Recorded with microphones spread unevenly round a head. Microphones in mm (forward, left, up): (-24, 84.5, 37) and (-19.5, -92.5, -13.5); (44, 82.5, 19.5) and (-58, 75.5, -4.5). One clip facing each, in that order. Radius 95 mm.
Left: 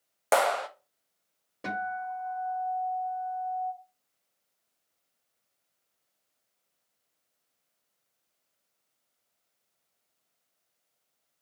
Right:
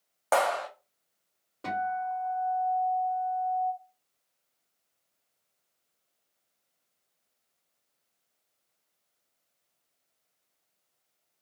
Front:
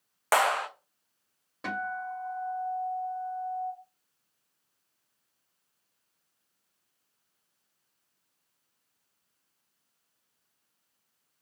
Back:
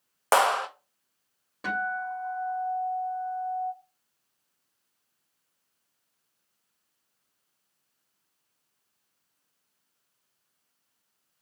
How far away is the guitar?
About 1.6 m.